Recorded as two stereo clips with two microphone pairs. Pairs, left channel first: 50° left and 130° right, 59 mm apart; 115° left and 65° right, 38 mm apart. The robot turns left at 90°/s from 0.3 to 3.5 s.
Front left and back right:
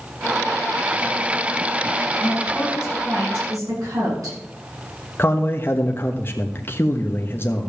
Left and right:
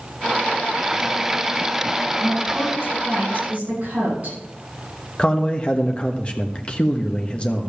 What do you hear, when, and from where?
2.2 s a woman speaking: 10° left, 8.5 m; by 4.4 s 105° right, 8.5 m
5.2 s a man speaking: 70° left, 1.2 m